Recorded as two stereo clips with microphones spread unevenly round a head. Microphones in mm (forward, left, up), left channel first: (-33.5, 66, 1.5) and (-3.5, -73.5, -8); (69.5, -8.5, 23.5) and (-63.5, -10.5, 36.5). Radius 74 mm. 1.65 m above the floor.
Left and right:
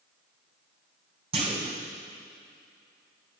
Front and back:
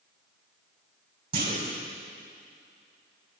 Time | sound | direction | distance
1.3 | a clunk | 130° right | 5.5 m